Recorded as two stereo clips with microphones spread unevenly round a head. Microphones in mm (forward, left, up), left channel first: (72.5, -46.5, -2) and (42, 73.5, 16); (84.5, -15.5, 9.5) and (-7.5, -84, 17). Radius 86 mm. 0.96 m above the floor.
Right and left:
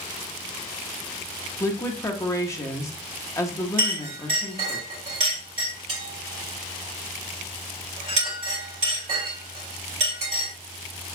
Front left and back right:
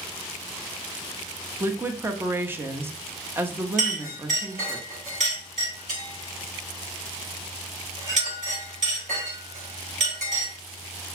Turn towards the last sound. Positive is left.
turn(degrees=165)